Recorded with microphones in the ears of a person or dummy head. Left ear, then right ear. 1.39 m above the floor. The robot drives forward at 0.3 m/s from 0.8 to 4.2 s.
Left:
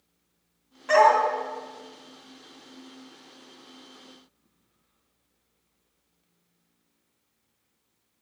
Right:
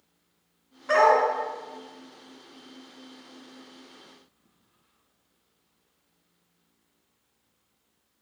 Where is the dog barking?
25° left (ahead or behind), 1.9 m.